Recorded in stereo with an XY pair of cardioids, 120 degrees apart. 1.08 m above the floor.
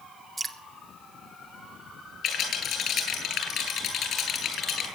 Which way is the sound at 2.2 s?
55° left.